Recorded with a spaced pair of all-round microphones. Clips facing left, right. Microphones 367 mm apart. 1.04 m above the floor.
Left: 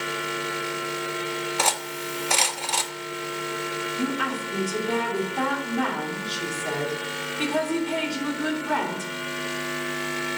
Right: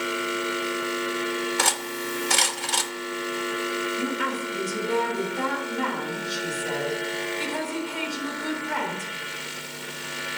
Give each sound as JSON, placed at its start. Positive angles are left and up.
{"t": 1.6, "sound": "cutlery clinking", "side_deg": -25, "distance_m": 0.7}
{"t": 4.0, "sound": "a woman speaking", "side_deg": 70, "distance_m": 3.0}